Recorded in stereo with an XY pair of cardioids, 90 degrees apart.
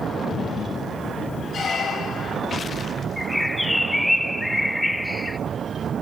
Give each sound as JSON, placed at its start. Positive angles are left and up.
{"t": 1.5, "sound": "a squeak", "azimuth_deg": 65, "distance_m": 7.0}
{"t": 3.2, "sound": "a bird", "azimuth_deg": 10, "distance_m": 1.1}